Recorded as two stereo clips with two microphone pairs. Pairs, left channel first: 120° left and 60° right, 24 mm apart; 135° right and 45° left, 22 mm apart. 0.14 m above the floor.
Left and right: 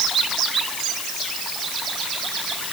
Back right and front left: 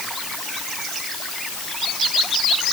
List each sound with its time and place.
Only background noise.